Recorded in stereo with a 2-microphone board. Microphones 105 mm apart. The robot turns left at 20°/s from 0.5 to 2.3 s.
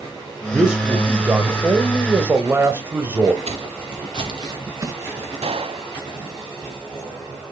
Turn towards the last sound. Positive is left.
turn(degrees=-65)  # may be behind; listen again after turning